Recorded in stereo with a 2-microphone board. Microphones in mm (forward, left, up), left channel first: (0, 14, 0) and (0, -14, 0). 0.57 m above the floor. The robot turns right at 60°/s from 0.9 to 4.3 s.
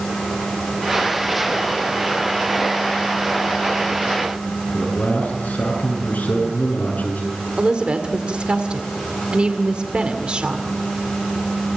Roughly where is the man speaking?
Left.